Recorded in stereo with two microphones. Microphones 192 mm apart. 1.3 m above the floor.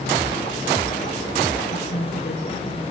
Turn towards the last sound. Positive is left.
turn(degrees=65)  # may be behind; listen again after turning